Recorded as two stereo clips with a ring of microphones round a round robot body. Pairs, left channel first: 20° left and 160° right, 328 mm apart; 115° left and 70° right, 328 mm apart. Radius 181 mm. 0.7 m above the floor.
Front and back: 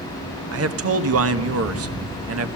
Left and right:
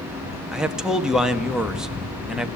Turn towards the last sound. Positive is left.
turn(degrees=-155)